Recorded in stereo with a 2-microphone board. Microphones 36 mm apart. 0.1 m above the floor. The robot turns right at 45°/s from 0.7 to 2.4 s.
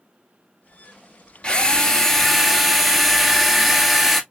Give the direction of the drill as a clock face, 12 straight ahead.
7 o'clock.